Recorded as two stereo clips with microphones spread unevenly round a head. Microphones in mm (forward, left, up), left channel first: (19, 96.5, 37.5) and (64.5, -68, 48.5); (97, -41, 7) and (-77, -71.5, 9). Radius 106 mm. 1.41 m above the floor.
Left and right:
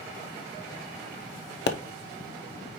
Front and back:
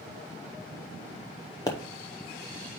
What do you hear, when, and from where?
1.7 s a pop: 85° left, 0.7 m